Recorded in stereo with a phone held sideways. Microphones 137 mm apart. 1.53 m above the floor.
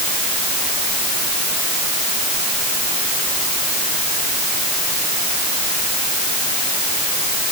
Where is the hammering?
I don't hear hammering.